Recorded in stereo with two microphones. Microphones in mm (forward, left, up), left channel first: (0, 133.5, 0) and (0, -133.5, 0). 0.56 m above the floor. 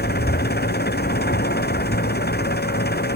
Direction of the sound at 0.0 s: 40° left (ahead or behind).